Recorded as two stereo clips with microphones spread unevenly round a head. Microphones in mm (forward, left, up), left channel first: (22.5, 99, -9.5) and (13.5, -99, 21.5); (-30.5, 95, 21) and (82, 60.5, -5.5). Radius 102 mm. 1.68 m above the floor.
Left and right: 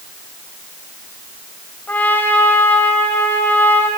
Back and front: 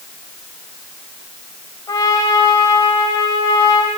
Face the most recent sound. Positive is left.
turn(degrees=175)